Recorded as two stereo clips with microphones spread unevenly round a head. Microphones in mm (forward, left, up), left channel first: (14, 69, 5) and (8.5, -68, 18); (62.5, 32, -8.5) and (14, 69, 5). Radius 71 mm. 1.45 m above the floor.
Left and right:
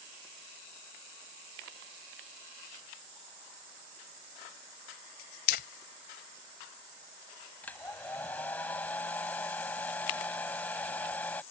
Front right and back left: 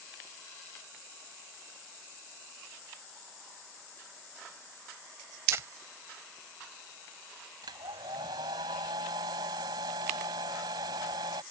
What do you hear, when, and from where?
5.5 s crumpling: 115° left
7.6 s a hair dryer: 170° left